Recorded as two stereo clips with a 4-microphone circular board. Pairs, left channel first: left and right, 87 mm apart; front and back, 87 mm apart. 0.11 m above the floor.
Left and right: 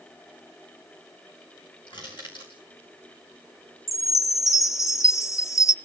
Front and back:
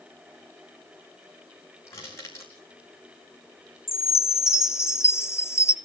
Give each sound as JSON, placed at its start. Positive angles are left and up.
{"t": 1.9, "sound": "crushing", "azimuth_deg": 60, "distance_m": 4.5}
{"t": 3.9, "sound": "a chime", "azimuth_deg": 50, "distance_m": 0.5}